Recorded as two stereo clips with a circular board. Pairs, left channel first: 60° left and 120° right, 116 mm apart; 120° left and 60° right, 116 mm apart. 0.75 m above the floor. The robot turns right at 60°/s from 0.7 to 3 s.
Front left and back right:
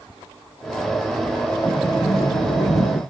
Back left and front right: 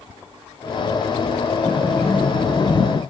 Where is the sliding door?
10° left, 0.7 m; by 3.0 s 95° left, 0.7 m.